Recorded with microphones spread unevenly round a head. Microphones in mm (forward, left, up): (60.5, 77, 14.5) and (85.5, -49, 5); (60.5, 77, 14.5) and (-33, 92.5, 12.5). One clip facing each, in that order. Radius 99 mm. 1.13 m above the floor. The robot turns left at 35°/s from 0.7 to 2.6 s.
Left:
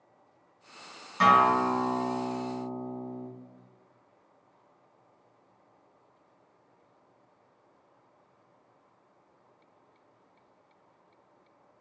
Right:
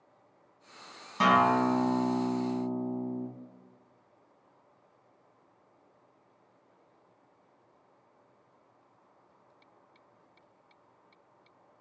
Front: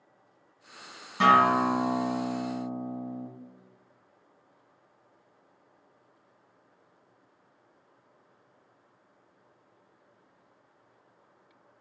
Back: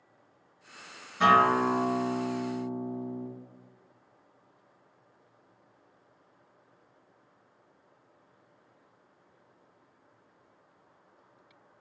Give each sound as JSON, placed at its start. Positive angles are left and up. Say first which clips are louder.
{"t": 1.2, "sound": "a guitar", "louder": "left 1 dB, front 1 dB", "azimuth_deg": -15, "distance_m": 1.8}